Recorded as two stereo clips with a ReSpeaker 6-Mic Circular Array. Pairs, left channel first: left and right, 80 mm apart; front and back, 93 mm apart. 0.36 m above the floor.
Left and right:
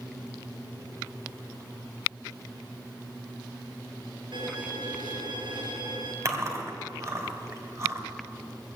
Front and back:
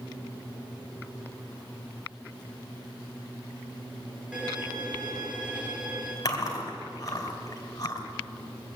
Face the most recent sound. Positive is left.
turn(degrees=-45)